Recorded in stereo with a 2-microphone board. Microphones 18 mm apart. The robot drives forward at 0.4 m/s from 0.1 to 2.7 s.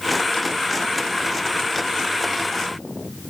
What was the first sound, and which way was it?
Only background noise.